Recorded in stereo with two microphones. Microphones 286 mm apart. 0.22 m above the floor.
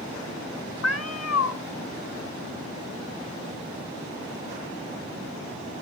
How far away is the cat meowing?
About 0.9 m.